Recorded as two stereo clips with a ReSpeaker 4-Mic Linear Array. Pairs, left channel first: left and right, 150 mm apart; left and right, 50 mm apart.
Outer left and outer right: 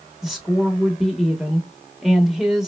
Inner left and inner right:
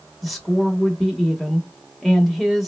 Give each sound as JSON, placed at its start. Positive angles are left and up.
{"t": 0.2, "sound": "a woman speaking", "side_deg": 0, "distance_m": 0.8}